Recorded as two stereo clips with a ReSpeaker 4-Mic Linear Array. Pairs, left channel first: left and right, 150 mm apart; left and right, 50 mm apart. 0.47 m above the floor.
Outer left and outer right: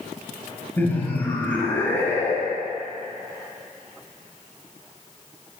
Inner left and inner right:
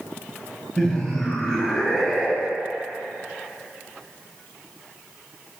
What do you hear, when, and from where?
0.8 s laughter: 15° left (ahead or behind), 2 m